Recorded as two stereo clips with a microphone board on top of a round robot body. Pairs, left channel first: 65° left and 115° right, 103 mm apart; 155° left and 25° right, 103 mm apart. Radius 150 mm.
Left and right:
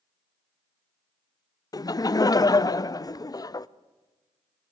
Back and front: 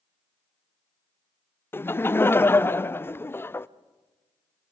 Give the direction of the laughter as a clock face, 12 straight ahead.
9 o'clock.